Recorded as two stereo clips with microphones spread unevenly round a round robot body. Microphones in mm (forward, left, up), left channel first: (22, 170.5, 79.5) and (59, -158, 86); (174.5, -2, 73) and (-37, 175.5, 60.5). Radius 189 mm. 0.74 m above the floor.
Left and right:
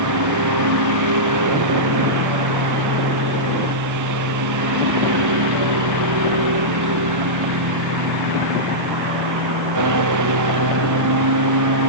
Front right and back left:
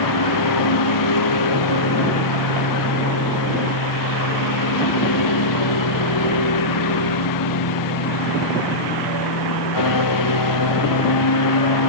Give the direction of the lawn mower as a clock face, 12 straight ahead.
2 o'clock.